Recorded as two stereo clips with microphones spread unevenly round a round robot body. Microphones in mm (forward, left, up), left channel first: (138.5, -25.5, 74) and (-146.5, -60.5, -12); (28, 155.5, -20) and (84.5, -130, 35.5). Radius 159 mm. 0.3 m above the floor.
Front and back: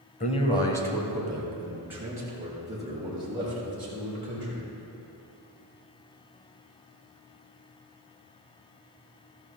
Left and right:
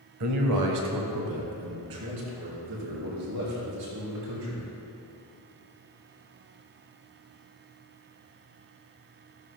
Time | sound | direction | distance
0.2 | a man speaking | 65° right | 2 m